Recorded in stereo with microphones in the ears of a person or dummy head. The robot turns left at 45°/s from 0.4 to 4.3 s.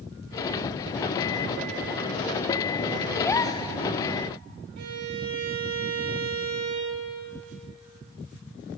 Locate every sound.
3.2 s a gasp: 10° left (ahead or behind), 0.8 m; by 3.7 s 30° left (ahead or behind), 0.8 m
4.8 s a violin: 55° right (ahead or behind), 2 m